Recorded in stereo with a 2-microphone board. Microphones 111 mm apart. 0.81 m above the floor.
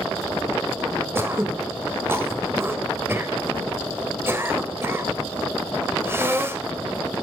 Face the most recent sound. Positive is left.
turn(degrees=-25)  # may be behind; listen again after turning